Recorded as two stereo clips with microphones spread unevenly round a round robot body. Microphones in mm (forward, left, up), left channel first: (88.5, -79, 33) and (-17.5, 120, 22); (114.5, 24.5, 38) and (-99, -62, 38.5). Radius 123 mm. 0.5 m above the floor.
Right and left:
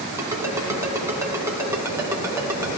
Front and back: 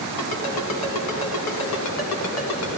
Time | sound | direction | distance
0.2 | a ringtone | 40° left | 2.5 m